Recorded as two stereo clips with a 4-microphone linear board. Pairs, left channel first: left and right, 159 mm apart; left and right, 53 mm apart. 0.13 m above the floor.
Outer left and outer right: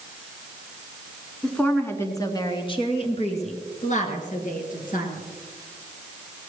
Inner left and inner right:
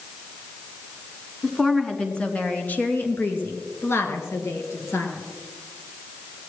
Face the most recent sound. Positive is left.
turn(degrees=60)  # may be behind; listen again after turning